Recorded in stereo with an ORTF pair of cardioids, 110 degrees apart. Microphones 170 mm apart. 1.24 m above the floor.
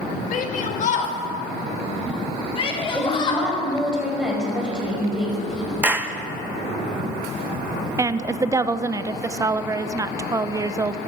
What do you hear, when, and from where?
0.3 s a shout: 55° left, 1.5 m; by 3.5 s 30° left, 3 m
2.9 s a woman speaking: 5° right, 5 m
5.8 s a clap: 10° right, 0.8 m
8.0 s a woman speaking: 20° right, 0.5 m